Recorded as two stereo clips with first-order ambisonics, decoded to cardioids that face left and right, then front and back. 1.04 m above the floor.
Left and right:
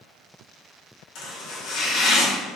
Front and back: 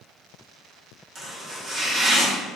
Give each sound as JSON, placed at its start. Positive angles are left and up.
{"t": 1.1, "sound": "chopping", "azimuth_deg": 125, "distance_m": 1.8}